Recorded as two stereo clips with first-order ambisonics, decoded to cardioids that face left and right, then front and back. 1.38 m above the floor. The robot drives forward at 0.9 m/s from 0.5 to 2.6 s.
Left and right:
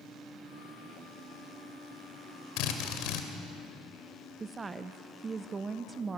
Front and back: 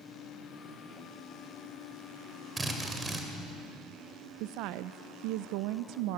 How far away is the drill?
About 2 m.